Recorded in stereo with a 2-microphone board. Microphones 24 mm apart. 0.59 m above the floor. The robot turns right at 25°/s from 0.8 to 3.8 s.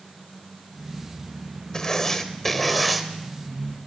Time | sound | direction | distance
1.7 | writing | 155° left | 0.8 m